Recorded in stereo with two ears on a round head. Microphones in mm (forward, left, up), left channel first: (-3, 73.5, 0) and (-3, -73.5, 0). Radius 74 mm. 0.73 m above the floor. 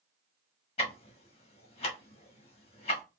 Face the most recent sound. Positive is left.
turn(degrees=35)  # may be behind; listen again after turning